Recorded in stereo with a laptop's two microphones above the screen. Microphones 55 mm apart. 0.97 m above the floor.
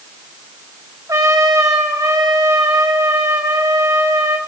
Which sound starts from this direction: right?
A trumpet, at 1.1 s.